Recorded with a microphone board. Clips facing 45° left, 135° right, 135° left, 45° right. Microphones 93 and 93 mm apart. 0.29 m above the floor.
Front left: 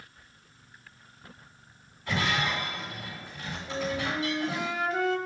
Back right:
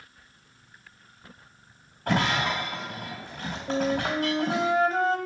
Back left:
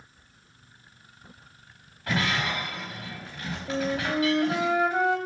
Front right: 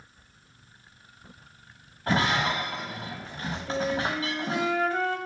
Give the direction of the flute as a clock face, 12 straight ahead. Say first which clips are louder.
Back right 5 dB, back left 1 dB; 5 o'clock.